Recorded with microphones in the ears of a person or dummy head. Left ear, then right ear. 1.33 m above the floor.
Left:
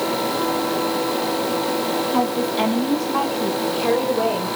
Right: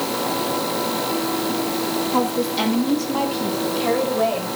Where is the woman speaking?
10° left (ahead or behind), 2.5 m; by 4.5 s 30° left (ahead or behind), 3.5 m.